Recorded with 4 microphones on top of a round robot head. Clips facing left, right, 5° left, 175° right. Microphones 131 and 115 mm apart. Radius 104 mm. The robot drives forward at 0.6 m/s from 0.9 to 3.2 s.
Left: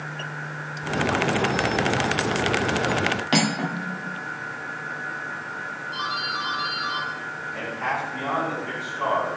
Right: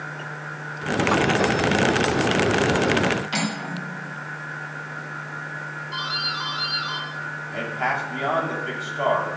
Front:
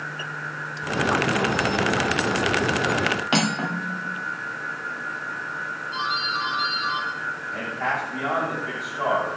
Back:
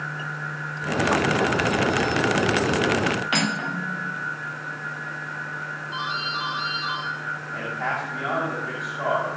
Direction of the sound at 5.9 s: 90° right.